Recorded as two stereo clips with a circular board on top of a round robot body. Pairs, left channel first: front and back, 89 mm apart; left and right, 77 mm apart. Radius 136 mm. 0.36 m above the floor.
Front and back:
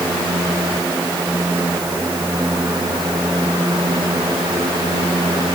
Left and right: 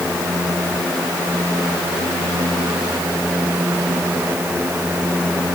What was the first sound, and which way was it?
Only background noise.